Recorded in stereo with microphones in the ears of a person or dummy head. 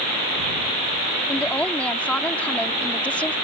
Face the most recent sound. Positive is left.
turn(degrees=0)  # may be behind; listen again after turning